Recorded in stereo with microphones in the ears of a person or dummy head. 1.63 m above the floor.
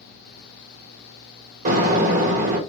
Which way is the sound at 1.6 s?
45° right (ahead or behind).